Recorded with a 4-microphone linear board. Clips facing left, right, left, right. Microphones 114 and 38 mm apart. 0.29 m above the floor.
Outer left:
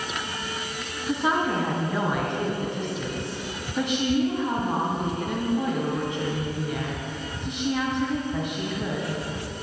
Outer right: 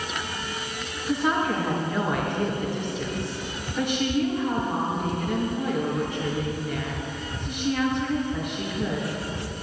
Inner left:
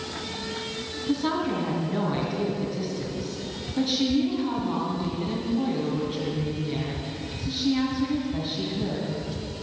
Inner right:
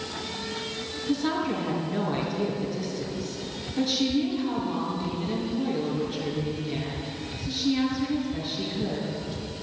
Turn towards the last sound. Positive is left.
turn(degrees=20)  # may be behind; listen again after turning